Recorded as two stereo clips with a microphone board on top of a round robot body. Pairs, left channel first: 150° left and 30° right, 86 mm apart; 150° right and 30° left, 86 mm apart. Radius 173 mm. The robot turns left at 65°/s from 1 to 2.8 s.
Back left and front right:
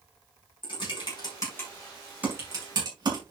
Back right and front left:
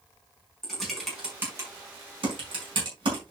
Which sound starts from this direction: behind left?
Typing on a keyboard, at 0.6 s.